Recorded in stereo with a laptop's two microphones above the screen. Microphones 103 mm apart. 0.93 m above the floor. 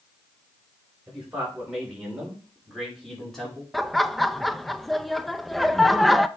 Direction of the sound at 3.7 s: Centre (ahead or behind).